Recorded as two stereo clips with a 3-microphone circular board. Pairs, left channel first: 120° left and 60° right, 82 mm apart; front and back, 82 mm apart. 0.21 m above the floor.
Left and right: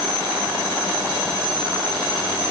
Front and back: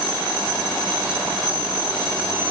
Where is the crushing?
I don't hear crushing.